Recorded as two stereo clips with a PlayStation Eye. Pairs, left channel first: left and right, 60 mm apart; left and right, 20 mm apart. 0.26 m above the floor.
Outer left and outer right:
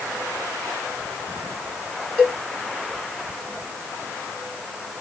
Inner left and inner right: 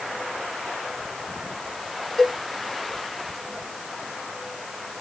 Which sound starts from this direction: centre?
A cowbell, at 2.2 s.